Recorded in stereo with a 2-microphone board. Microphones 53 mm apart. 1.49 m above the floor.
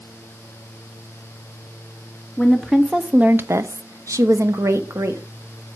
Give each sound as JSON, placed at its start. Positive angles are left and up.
{"t": 2.4, "sound": "a woman speaking", "side_deg": 5, "distance_m": 1.2}